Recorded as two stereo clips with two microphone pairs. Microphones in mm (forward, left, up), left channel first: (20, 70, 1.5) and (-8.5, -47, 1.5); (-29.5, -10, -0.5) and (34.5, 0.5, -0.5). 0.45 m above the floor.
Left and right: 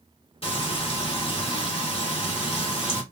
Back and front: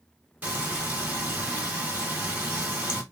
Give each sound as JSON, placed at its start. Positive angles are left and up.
{"t": 0.4, "sound": "frying", "azimuth_deg": 70, "distance_m": 1.4}